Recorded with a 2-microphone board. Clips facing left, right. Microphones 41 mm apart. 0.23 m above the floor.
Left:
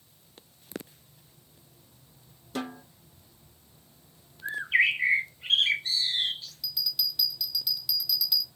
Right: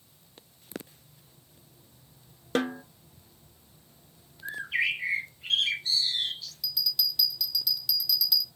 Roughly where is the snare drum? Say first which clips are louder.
Right 7 dB; right.